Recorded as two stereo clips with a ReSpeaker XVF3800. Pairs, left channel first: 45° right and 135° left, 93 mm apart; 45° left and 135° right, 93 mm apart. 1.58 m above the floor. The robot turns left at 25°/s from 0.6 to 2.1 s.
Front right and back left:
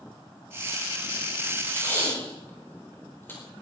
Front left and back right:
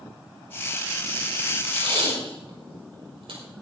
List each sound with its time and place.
1.7 s tape being pulled: 105° right, 5 m; by 3.4 s 115° right, 5 m